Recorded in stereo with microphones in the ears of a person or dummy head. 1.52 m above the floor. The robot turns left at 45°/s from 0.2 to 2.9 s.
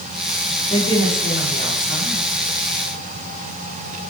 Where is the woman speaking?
165° left, 5 m; by 2.3 s 90° left, 5 m.